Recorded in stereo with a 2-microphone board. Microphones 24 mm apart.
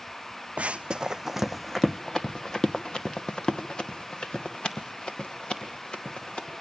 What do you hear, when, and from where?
0.6 s running footsteps: 65° right (ahead or behind), 0.5 m; by 6.5 s 45° left (ahead or behind), 3.5 m